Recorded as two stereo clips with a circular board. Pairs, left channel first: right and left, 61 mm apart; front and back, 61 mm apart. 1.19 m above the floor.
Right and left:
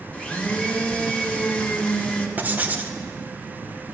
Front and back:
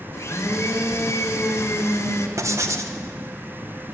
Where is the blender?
20° right, 1.6 m.